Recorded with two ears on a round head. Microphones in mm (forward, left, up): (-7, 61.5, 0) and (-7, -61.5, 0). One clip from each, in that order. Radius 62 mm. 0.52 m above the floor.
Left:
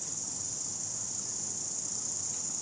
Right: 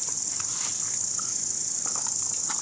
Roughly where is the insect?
Right.